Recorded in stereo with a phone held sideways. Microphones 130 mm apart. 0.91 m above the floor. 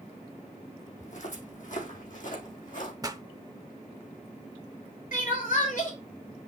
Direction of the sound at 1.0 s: 65° left (ahead or behind).